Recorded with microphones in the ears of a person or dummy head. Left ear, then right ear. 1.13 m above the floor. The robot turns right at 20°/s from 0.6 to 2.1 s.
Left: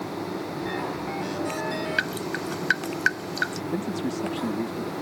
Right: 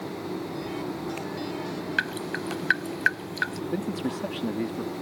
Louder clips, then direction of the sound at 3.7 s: Left 1 dB; 20° right (ahead or behind).